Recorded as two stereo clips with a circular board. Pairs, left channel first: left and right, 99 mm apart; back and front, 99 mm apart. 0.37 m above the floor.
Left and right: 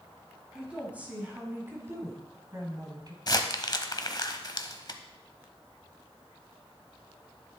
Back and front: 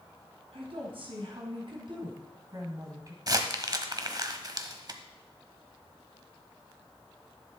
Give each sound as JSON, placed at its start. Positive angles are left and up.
{"t": 0.5, "sound": "a woman speaking", "azimuth_deg": -10, "distance_m": 3.0}
{"t": 3.3, "sound": "crumpling", "azimuth_deg": 45, "distance_m": 1.0}